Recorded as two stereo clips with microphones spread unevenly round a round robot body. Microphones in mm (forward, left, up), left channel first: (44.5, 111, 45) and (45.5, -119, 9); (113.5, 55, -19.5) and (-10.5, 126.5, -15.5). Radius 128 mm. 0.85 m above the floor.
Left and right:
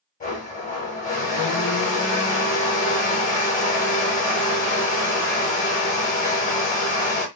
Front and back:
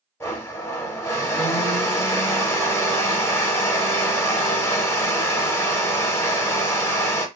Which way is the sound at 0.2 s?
45° left.